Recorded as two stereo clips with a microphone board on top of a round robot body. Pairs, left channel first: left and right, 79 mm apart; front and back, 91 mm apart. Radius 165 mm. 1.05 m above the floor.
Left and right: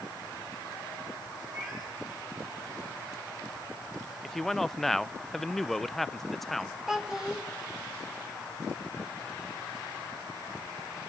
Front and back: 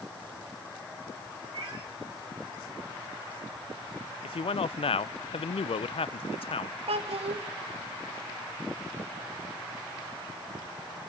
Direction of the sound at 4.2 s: 5° left.